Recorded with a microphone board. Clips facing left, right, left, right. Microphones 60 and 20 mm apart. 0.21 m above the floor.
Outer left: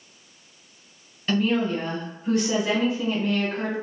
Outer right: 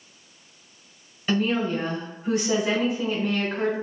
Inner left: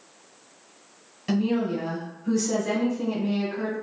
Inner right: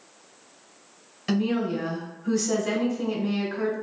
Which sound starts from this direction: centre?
A woman speaking, at 1.3 s.